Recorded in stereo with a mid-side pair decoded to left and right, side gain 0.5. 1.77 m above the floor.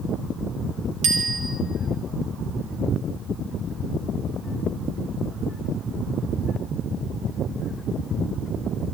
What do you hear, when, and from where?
1.0 s a bicycle bell: 70° right, 2.5 m